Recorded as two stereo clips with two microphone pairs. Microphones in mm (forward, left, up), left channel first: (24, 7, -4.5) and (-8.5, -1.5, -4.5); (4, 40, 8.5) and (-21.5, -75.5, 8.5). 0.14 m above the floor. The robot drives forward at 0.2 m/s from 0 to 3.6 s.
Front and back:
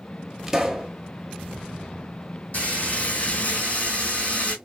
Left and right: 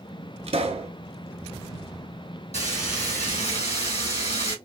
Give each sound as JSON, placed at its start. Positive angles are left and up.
{"t": 0.5, "sound": "a pop", "azimuth_deg": -85, "distance_m": 0.8}
{"t": 2.5, "sound": "frying", "azimuth_deg": 55, "distance_m": 2.5}